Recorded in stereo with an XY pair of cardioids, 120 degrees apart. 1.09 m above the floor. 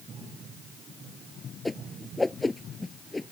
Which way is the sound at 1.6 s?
15° left.